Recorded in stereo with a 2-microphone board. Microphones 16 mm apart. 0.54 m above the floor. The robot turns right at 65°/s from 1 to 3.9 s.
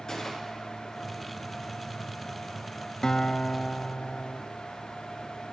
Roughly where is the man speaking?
I don't hear a man speaking.